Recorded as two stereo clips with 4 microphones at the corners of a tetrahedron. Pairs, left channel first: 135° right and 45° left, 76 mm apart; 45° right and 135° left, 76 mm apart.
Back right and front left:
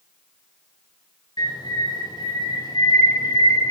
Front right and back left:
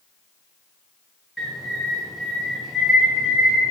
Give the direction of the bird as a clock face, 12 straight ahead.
5 o'clock.